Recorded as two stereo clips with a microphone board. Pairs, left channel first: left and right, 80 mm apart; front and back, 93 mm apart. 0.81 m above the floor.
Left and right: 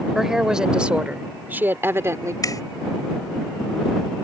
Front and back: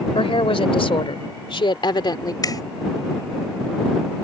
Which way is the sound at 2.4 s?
45° left.